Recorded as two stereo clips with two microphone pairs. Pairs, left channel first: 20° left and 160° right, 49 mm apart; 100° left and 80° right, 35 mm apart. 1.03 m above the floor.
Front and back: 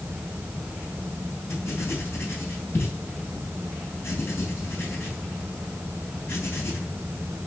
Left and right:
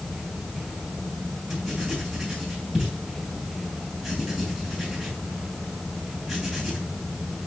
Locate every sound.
1.5 s writing: straight ahead, 5.5 m